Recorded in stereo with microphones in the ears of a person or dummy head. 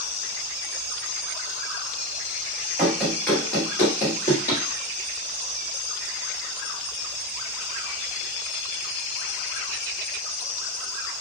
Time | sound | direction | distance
2.8 | running footsteps | 5° right (ahead or behind) | 1.6 m